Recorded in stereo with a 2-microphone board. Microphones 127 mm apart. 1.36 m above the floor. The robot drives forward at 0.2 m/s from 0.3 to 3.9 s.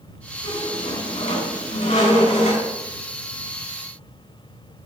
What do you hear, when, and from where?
0.4 s a squeak: 70° left (ahead or behind), 5 m; by 2.6 s 75° left (ahead or behind), 5 m